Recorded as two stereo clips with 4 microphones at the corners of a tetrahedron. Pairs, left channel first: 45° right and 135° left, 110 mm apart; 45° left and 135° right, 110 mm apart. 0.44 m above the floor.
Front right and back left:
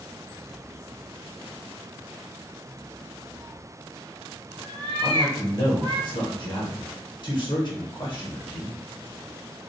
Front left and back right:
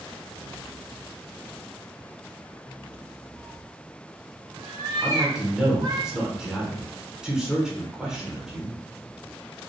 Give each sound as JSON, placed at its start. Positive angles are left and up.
{"t": 3.4, "sound": "a cat meowing", "azimuth_deg": 175, "distance_m": 0.9}
{"t": 5.0, "sound": "a man speaking", "azimuth_deg": -55, "distance_m": 1.0}